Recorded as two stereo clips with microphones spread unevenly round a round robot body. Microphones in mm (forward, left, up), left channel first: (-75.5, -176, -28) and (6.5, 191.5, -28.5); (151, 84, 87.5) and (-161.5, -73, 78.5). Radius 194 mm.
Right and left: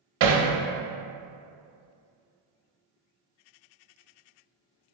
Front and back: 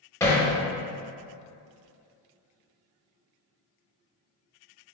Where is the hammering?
110° left, 0.7 m.